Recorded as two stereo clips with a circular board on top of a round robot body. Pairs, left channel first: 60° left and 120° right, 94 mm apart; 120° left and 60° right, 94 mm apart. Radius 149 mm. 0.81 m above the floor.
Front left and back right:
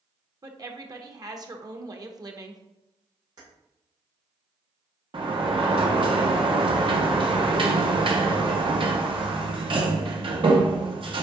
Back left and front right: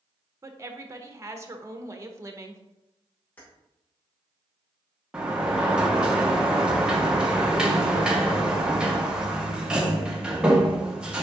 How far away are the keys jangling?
About 2.5 m.